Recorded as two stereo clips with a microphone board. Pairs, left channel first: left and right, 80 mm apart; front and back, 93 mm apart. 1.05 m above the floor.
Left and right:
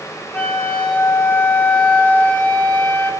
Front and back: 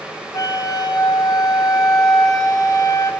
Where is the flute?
30° left, 1.0 m.